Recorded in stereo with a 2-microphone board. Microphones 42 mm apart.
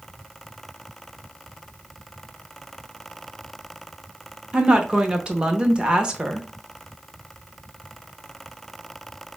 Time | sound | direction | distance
4.5 | a woman speaking | 25° right (ahead or behind) | 0.8 m